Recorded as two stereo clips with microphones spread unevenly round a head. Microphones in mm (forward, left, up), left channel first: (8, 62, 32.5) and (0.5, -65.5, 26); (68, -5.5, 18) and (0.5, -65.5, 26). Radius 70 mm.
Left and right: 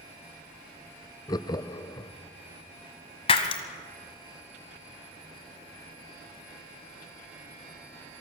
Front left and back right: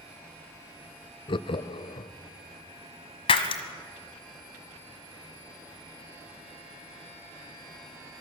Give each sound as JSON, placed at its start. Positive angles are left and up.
{"t": 1.3, "sound": "laughter", "azimuth_deg": 25, "distance_m": 0.6}
{"t": 3.3, "sound": "breaking glass", "azimuth_deg": 55, "distance_m": 1.5}